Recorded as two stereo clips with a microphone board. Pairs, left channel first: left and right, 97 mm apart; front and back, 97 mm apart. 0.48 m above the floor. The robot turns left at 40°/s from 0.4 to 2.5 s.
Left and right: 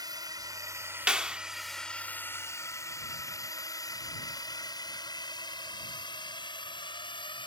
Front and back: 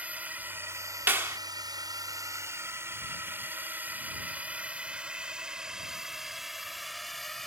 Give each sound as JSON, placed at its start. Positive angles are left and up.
{"t": 0.0, "sound": "a drone", "azimuth_deg": -110}
{"t": 1.1, "sound": "a clap", "azimuth_deg": -155}